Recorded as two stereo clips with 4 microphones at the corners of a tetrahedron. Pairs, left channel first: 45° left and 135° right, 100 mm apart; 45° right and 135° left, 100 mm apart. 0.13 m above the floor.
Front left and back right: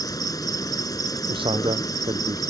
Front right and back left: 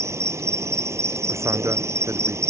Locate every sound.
0.0 s an insect: 80° left
1.3 s a man speaking: 165° right